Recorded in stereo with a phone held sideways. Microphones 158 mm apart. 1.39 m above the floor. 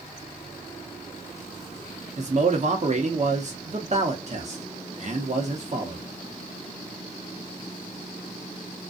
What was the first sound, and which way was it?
A man speaking, 50° right (ahead or behind).